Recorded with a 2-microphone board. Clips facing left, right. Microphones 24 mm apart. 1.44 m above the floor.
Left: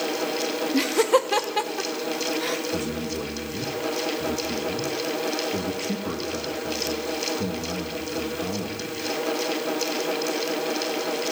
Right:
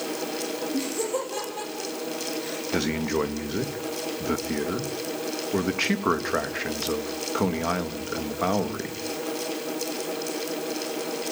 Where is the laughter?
75° left (ahead or behind), 1.9 m; by 2.6 s 80° left, 3.5 m.